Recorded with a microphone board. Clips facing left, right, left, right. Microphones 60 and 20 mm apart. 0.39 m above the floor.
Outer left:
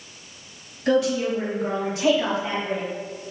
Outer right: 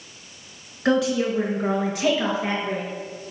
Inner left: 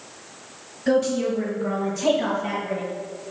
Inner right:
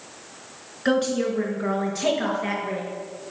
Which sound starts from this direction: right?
A woman speaking, at 0.8 s.